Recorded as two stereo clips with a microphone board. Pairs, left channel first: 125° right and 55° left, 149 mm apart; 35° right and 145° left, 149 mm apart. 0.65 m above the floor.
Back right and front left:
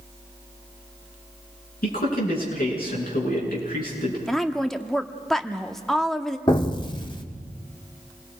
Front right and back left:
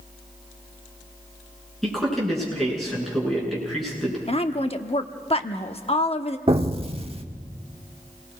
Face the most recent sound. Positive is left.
turn(degrees=-175)